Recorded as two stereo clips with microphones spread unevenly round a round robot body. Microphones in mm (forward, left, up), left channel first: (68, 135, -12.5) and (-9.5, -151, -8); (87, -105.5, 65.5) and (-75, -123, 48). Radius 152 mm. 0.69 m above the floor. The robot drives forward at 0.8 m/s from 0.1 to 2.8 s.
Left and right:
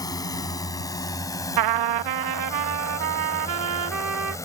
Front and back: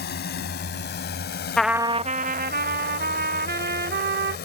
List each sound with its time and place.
0.0 s a drone: 5° right
1.6 s a trumpet: 80° right; by 4.4 s 150° right